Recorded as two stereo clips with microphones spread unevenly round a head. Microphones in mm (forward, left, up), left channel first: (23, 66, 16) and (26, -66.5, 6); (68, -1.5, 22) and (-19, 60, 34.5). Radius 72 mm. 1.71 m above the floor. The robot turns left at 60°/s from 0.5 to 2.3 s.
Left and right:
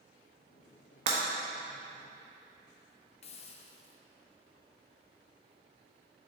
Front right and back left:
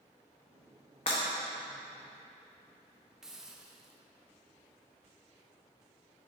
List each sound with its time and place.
1.1 s breaking glass: 70° right, 1.2 m; by 1.2 s 80° right, 1.2 m
3.2 s a hiss: 65° left, 0.5 m